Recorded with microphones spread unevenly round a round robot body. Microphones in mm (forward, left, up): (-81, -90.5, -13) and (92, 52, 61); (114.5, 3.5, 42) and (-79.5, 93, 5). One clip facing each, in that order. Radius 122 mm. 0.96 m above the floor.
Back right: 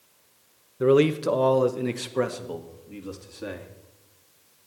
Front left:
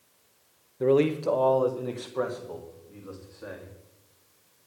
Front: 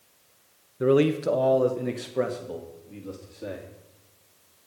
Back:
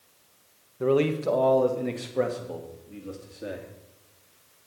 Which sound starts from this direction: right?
A man speaking, at 0.8 s.